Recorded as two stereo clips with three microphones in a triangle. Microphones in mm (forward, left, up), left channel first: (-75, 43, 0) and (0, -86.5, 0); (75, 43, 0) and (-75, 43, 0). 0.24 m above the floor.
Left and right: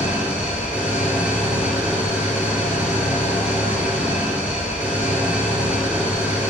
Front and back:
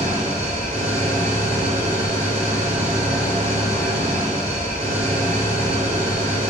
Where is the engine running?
140° right, 2.5 m.